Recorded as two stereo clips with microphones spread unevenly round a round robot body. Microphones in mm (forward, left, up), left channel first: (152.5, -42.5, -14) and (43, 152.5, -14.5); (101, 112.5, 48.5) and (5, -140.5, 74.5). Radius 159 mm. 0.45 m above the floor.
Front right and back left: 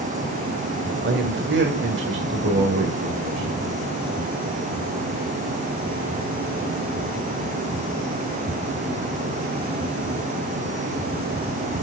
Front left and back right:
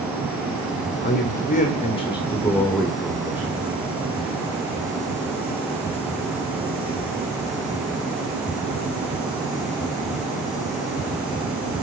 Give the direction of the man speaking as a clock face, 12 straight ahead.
9 o'clock.